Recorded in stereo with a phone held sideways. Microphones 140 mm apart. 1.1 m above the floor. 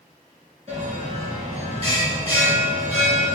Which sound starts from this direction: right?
A bell, at 0.7 s.